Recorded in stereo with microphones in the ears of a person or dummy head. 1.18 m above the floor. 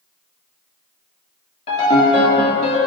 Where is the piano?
30° left (ahead or behind), 1.7 m.